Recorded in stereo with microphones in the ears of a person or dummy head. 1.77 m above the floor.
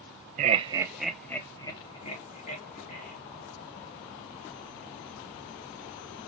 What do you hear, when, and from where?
0.4 s laughter: 40° right (ahead or behind), 0.8 m; by 3.1 s 45° left (ahead or behind), 2 m